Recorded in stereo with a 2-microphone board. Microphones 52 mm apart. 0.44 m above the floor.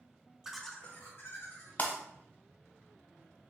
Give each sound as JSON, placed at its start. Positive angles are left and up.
{"t": 0.4, "sound": "laughter", "side_deg": -10, "distance_m": 0.8}
{"t": 1.8, "sound": "breaking glass", "side_deg": 35, "distance_m": 1.0}